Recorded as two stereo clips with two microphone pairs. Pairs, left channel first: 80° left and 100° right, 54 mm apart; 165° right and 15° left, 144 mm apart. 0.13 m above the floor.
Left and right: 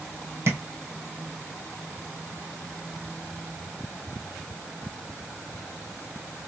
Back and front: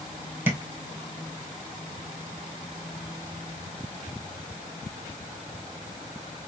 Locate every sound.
0.5 s tapping: 60° right, 1.4 m